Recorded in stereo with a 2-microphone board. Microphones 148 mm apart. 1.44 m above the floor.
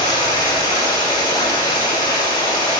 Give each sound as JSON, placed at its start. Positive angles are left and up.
{"t": 0.0, "sound": "running water", "side_deg": 30, "distance_m": 3.0}